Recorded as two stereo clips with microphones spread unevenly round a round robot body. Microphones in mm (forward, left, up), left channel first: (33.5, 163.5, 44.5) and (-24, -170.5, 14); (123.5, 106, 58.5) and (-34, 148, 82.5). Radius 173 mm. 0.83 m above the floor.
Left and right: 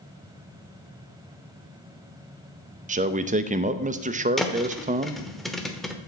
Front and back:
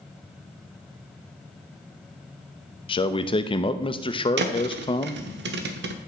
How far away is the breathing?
No breathing in this recording.